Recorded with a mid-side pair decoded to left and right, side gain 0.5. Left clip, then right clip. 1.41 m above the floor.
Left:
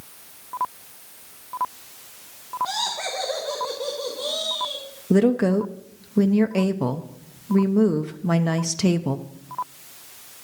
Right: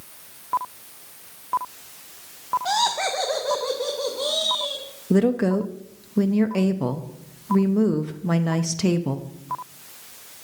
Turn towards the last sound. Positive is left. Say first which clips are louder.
# left 1 dB
turn(degrees=10)